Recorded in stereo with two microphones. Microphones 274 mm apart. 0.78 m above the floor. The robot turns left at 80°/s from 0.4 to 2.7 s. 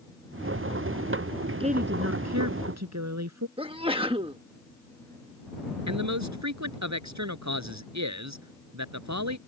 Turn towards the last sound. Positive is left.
turn(degrees=-80)